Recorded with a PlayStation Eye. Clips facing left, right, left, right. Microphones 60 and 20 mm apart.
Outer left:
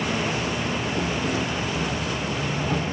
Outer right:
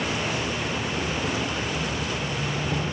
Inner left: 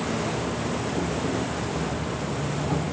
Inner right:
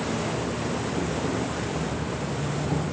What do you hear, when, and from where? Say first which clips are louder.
0.0 s an insect: outer left 2 dB, inner left 1 dB; 45° left (ahead or behind), 3 m